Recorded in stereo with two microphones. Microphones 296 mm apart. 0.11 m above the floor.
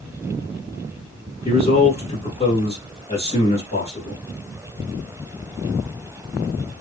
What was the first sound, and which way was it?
A man speaking, 20° left (ahead or behind).